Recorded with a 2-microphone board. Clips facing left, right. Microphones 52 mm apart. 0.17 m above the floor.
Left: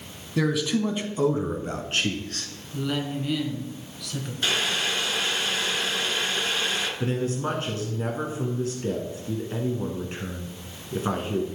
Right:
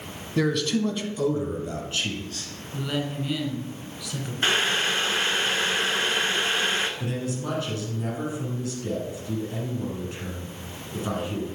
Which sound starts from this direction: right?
Boiling, at 4.4 s.